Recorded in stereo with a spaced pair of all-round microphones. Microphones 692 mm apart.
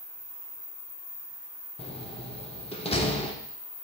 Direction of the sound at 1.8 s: 10° left (ahead or behind).